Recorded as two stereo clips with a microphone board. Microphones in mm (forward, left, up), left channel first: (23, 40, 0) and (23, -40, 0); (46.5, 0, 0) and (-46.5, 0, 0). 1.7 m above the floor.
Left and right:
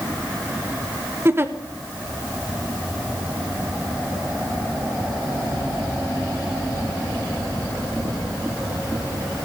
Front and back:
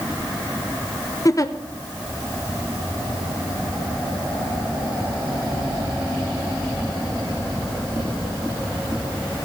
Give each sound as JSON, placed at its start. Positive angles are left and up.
{"t": 1.2, "sound": "a giggle", "azimuth_deg": -35, "distance_m": 0.9}